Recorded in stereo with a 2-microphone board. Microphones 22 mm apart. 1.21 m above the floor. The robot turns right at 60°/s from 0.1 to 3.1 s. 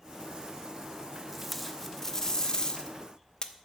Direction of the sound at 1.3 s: 15° right.